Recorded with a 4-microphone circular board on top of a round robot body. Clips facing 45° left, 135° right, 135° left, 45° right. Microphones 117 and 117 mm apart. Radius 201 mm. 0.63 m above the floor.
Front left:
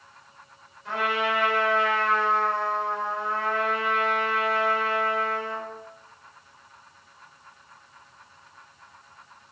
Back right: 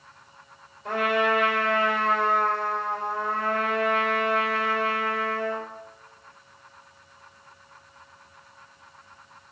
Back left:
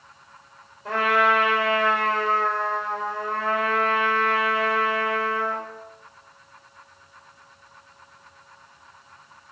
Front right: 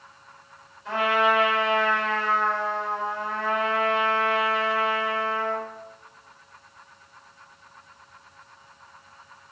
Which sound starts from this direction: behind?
A trumpet, at 0.8 s.